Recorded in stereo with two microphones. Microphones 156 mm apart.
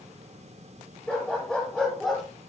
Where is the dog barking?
5° left (ahead or behind), 6.5 m; by 2.2 s centre (ahead or behind), 7 m.